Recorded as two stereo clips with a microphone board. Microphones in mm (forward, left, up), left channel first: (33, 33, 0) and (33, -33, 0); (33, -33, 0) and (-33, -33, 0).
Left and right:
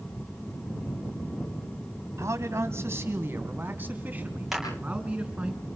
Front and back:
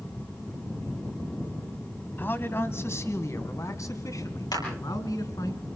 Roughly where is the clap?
Ahead.